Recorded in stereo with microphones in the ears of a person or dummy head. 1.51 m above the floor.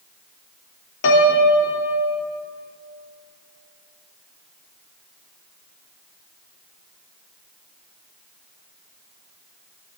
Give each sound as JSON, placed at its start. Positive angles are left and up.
{"t": 1.0, "sound": "a piano", "side_deg": 60, "distance_m": 1.0}